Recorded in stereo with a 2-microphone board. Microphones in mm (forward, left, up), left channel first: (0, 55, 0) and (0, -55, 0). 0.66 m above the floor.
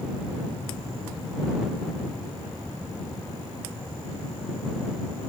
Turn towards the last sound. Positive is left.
No sound to turn to.